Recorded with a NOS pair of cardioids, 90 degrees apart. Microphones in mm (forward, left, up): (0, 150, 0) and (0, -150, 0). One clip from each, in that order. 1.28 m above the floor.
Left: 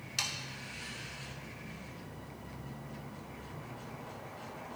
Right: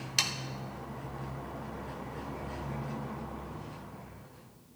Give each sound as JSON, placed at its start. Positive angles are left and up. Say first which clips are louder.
{"t": 0.2, "sound": "sawing", "louder": "right 5 dB", "azimuth_deg": -35, "distance_m": 1.0}